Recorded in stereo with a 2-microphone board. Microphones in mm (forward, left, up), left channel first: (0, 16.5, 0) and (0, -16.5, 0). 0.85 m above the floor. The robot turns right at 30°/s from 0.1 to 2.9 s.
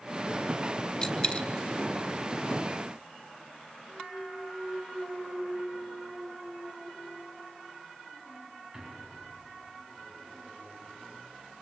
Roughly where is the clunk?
Right.